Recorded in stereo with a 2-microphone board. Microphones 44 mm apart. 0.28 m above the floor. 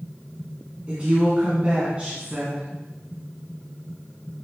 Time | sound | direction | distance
0.9 | a woman speaking | 30° right (ahead or behind) | 3 m